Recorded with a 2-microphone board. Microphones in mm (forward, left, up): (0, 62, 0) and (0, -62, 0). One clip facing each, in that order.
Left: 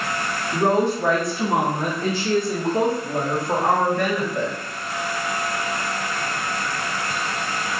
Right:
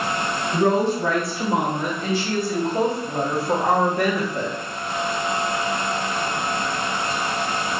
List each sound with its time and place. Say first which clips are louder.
0.5 s a woman speaking: even; 65° left (ahead or behind), 1.4 m; by 4.5 s 25° right (ahead or behind), 1.5 m